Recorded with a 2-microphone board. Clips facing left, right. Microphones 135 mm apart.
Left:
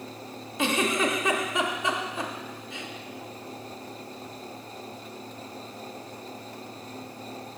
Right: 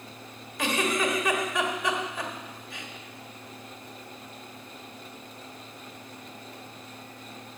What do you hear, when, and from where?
0.6 s a giggle: 25° left (ahead or behind), 1.2 m